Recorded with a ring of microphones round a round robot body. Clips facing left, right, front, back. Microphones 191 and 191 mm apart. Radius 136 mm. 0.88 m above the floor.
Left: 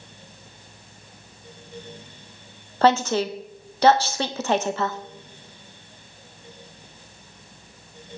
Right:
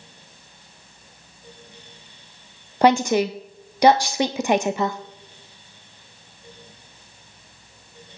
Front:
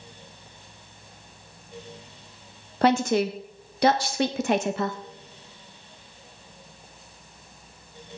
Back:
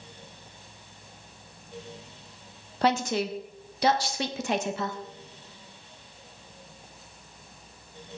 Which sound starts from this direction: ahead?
A woman speaking, at 2.8 s.